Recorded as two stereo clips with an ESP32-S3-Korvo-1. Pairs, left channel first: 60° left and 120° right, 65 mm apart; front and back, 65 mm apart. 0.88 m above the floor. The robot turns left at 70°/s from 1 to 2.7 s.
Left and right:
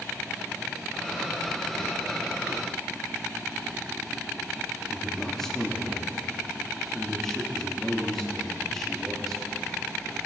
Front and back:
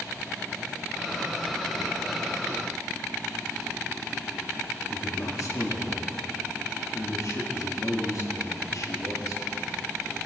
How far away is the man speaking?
About 1.6 m.